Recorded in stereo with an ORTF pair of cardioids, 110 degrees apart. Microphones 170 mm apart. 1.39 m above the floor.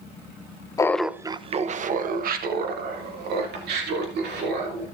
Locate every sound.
0.8 s laughter: 20° left, 0.6 m; by 4.8 s 75° right, 3.5 m